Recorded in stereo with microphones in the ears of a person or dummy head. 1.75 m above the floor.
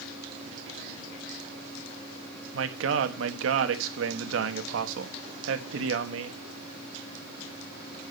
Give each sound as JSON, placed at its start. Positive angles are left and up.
{"t": 2.5, "sound": "a man speaking", "side_deg": -80, "distance_m": 1.4}